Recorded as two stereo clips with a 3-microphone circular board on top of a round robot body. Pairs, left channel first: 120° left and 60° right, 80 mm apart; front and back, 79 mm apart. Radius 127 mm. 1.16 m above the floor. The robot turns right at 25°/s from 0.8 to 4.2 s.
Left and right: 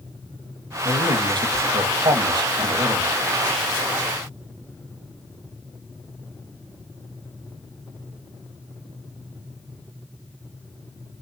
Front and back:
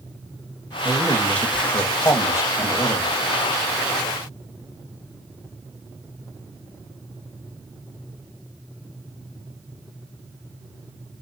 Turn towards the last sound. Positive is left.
turn(degrees=-5)